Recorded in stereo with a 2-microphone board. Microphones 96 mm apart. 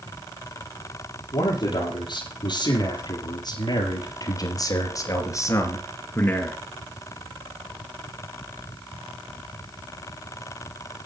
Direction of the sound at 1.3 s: 55° left (ahead or behind).